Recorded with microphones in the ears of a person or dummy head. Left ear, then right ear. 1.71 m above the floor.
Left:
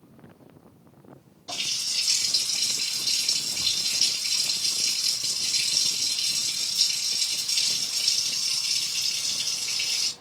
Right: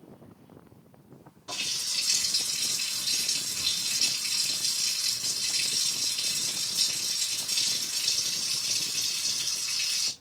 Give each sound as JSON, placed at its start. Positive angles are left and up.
{"t": 1.5, "sound": "a running tap", "side_deg": -30, "distance_m": 3.0}